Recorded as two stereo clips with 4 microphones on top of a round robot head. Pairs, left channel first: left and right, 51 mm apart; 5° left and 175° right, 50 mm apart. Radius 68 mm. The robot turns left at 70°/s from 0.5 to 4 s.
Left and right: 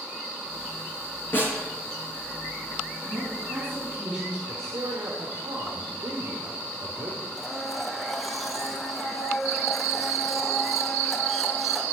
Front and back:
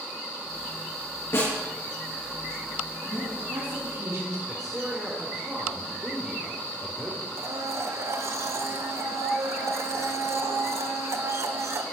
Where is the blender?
Straight behind, 1.4 m.